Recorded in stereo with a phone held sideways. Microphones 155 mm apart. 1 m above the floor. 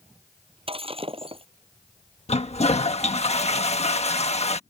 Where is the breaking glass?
35° right (ahead or behind).